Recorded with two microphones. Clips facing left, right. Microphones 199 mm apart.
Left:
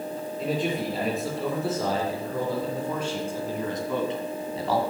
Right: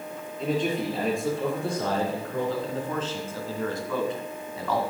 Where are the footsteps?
I don't hear footsteps.